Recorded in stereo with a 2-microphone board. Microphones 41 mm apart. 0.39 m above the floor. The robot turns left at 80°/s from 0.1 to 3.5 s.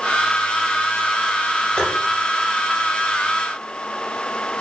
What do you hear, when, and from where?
1.8 s tapping: 20° left (ahead or behind), 2.5 m; by 1.9 s 30° left (ahead or behind), 2.5 m